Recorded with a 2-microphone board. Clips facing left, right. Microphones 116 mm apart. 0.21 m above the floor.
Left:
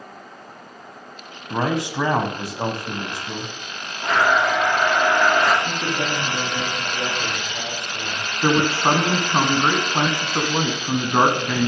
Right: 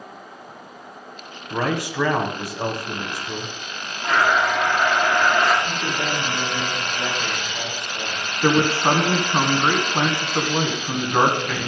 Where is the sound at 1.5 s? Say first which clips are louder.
Left 1 dB; 20° left (ahead or behind), 1.5 m.